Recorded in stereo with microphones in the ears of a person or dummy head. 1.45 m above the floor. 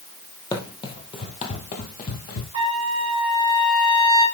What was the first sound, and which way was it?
Running footsteps, 20° left (ahead or behind).